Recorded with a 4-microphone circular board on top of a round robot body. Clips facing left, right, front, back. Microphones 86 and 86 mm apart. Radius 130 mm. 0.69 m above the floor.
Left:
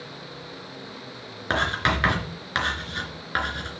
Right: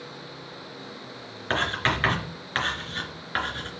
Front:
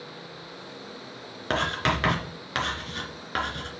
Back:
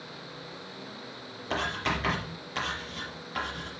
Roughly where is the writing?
Ahead.